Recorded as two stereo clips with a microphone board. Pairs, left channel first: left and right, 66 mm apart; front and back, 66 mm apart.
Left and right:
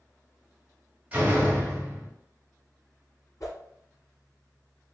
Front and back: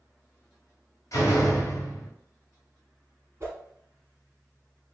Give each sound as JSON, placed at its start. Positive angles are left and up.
{"t": 1.1, "sound": "a door slam", "azimuth_deg": -25, "distance_m": 1.0}
{"t": 3.4, "sound": "a whoosh", "azimuth_deg": 125, "distance_m": 1.2}